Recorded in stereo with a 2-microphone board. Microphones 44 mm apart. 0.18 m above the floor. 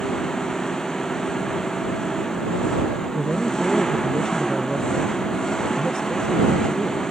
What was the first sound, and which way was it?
An engine running, 15° left (ahead or behind).